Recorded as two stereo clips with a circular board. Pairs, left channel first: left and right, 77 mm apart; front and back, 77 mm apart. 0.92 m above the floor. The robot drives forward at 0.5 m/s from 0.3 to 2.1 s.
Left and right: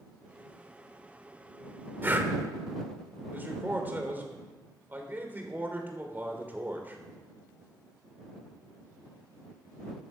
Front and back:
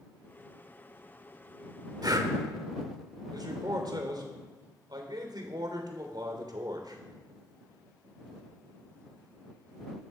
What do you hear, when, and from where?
2.0 s breathing: 150° right, 1.2 m; by 2.3 s 155° right, 1.2 m
3.3 s a man speaking: 155° right, 3 m